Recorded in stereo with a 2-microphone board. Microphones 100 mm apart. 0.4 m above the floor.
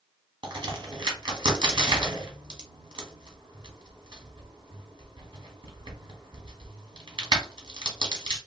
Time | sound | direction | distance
0.4 | a crack | 50° right (ahead or behind) | 1.0 m